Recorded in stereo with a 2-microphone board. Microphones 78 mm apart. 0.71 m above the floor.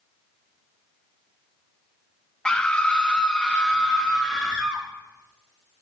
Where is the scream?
10° left (ahead or behind), 0.8 m; by 4.8 s 5° left (ahead or behind), 1.2 m.